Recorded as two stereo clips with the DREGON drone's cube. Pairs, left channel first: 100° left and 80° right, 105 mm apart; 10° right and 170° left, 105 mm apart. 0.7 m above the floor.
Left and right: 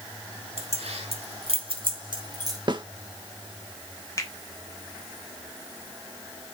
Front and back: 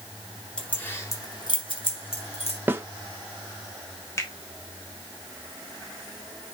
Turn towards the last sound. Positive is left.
turn(degrees=50)